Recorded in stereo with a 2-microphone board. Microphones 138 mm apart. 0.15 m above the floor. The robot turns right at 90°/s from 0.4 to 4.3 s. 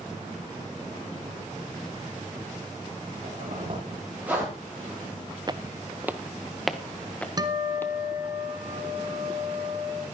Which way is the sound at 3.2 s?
75° right (ahead or behind).